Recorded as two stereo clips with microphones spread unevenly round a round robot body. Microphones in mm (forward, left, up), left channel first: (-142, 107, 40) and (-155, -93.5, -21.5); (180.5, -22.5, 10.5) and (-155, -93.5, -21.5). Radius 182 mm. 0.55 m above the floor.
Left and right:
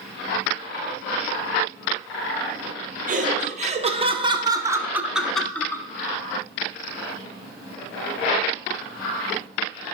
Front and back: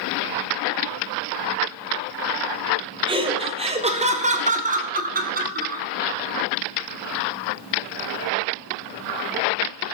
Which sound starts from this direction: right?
Laughter, at 3.1 s.